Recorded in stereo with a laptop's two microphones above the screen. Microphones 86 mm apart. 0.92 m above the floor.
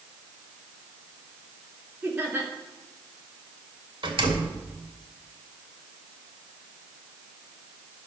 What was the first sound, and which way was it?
Laughter, 20° right (ahead or behind).